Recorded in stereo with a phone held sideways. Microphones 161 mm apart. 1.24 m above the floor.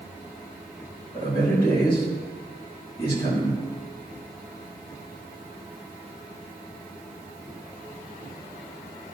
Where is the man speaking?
65° left (ahead or behind), 2 m.